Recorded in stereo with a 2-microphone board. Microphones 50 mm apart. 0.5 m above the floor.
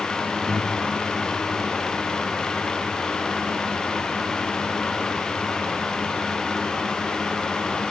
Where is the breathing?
30° left (ahead or behind), 3 m.